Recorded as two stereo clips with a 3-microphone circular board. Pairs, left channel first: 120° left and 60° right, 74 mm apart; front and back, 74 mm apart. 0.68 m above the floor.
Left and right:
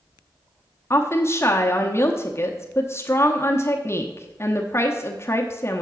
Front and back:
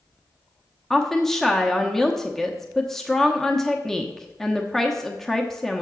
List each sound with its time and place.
0.9 s a woman speaking: 80° left, 0.9 m